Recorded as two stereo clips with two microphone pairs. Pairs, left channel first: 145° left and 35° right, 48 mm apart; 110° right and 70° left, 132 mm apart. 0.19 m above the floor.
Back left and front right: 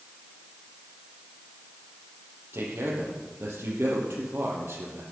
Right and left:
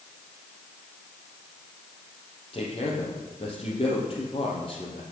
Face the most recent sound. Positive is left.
turn(degrees=-65)